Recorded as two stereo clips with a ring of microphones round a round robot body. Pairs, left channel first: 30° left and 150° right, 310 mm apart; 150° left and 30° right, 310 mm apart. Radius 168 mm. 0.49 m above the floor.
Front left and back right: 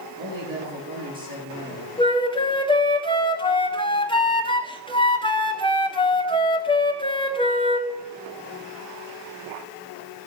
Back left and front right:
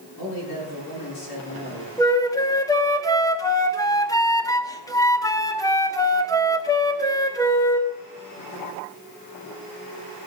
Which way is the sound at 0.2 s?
135° left.